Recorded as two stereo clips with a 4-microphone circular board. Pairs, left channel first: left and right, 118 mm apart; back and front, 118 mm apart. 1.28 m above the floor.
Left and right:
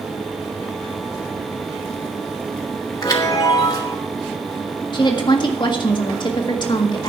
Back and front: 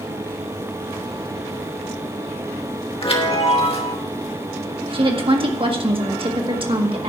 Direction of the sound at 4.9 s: 40° left.